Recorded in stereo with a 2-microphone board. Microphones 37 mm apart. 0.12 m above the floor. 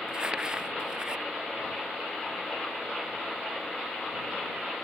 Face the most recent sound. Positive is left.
turn(degrees=-25)  # may be behind; listen again after turning